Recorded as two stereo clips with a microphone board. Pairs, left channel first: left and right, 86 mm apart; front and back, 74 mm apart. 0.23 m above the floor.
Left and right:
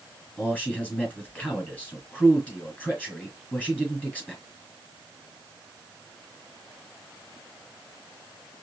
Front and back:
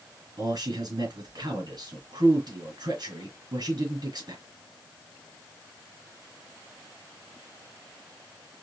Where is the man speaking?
160° left, 3 m.